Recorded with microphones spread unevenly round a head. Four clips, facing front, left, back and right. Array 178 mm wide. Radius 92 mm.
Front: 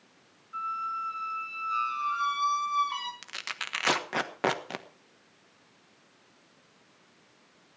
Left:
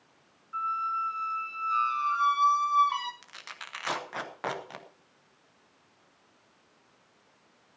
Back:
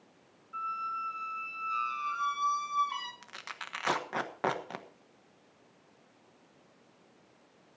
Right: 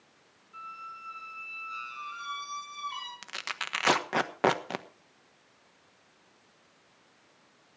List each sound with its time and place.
0.5 s a squeak: 75° left, 1.7 m
3.2 s tearing paper: 45° right, 1.3 m